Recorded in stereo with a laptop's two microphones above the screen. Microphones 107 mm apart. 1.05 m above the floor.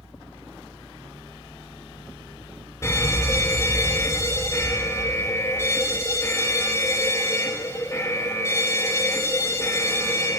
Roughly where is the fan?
Left.